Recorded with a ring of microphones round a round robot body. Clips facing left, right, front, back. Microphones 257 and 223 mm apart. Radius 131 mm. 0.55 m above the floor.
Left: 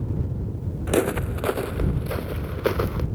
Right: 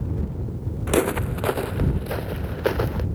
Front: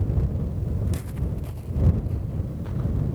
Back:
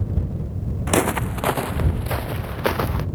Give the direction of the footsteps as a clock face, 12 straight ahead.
6 o'clock.